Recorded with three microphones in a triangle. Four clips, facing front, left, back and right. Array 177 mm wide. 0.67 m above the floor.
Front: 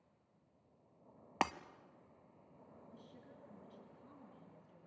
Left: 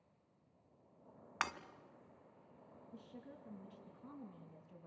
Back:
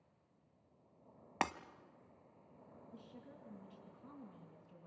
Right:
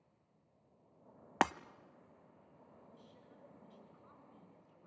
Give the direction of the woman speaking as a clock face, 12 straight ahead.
9 o'clock.